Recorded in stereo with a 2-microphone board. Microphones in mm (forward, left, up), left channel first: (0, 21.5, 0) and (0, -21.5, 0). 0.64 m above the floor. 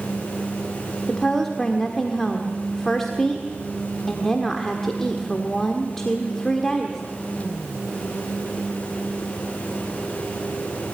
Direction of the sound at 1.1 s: 10° left (ahead or behind).